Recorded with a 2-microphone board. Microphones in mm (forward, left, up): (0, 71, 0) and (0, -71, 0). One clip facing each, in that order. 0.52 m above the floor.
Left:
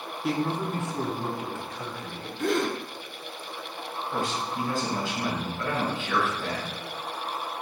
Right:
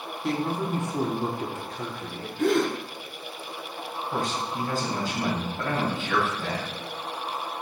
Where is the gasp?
80° right, 3.5 m.